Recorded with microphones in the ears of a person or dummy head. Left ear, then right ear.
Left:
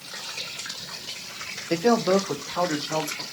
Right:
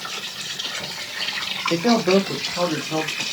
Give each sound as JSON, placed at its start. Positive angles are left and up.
{"t": 1.7, "sound": "a man speaking", "side_deg": 15, "distance_m": 0.6}